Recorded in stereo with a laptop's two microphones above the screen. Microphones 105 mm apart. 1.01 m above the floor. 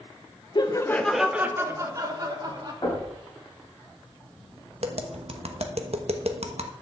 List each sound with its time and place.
0.6 s laughter: 45° left (ahead or behind), 0.6 m; by 2.7 s 40° right (ahead or behind), 1.9 m
2.8 s knocking: 40° left (ahead or behind), 4.5 m
4.8 s tapping: 70° right (ahead or behind), 1.1 m